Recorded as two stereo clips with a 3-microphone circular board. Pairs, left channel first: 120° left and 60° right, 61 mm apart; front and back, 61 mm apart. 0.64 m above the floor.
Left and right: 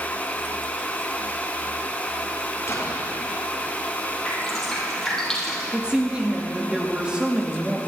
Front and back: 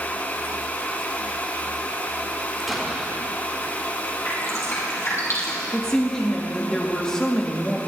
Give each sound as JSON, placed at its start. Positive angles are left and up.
{"t": 2.7, "sound": "an explosion", "azimuth_deg": 90, "distance_m": 3.0}
{"t": 4.2, "sound": "dripping", "azimuth_deg": 40, "distance_m": 3.5}
{"t": 5.7, "sound": "a woman speaking", "azimuth_deg": -45, "distance_m": 1.0}